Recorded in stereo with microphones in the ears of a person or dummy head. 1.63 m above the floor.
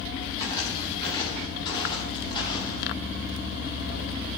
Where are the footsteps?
25° left (ahead or behind), 9 m; by 2.8 s 30° left (ahead or behind), 12 m.